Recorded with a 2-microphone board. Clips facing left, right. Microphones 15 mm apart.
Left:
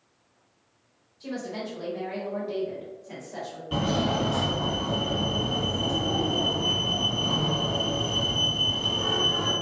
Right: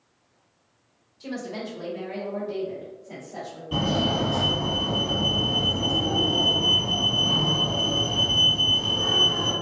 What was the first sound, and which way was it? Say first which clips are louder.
A woman speaking: right 1 dB; 25° right (ahead or behind).